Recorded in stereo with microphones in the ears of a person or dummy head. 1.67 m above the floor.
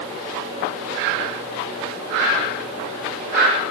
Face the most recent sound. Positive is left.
No sound to turn to.